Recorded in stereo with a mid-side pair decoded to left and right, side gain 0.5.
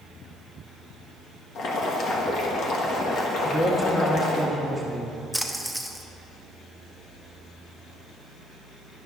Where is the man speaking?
5° left, 1.4 m.